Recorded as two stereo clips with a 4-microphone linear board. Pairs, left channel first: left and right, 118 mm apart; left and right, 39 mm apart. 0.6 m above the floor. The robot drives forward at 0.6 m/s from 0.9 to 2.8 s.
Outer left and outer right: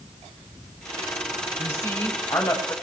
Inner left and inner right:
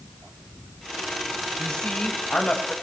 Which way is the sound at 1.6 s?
20° left (ahead or behind).